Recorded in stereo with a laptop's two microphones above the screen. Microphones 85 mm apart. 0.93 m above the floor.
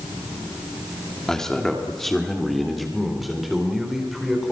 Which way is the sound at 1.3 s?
5° left (ahead or behind).